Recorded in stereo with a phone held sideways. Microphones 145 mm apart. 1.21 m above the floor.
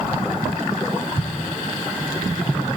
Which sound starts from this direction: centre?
An explosion, at 1.2 s.